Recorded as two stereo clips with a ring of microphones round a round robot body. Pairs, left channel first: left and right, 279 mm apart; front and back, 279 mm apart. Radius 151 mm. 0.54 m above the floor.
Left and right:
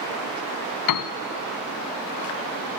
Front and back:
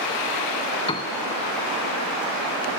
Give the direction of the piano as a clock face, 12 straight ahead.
10 o'clock.